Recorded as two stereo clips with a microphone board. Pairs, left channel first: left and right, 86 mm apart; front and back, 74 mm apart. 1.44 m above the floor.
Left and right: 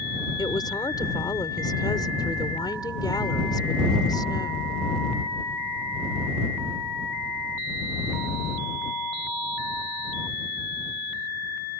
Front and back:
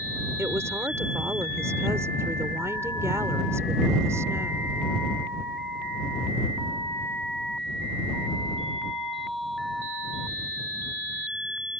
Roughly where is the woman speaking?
Behind left.